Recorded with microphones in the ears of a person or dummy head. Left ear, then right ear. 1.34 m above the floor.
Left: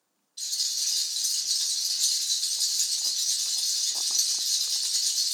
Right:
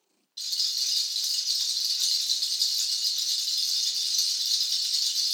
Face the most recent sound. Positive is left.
turn(degrees=-25)  # may be behind; listen again after turning